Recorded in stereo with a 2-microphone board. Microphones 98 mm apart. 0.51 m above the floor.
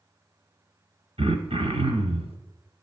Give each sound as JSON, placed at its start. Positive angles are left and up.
{"t": 1.2, "sound": "throat clearing", "side_deg": -80, "distance_m": 1.0}